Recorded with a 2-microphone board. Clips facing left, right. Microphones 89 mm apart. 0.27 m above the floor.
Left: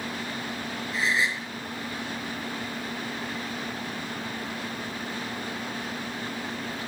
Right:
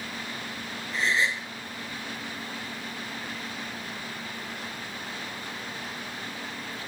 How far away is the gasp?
About 5 m.